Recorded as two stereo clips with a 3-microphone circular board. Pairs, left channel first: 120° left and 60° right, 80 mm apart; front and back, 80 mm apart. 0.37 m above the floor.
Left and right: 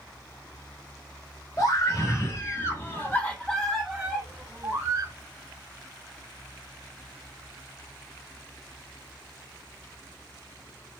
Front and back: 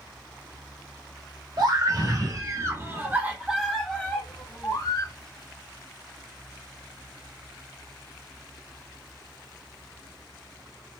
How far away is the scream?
About 2 m.